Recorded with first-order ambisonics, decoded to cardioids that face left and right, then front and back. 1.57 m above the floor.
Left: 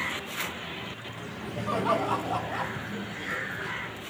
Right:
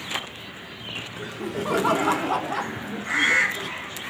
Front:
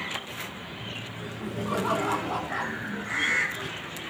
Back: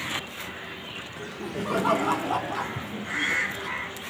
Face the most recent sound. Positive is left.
turn(degrees=-95)